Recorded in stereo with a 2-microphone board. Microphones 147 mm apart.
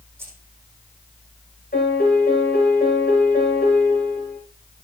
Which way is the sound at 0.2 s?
15° right (ahead or behind).